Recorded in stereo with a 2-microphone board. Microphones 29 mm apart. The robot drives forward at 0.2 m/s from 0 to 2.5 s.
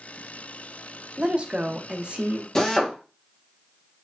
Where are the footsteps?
I don't hear footsteps.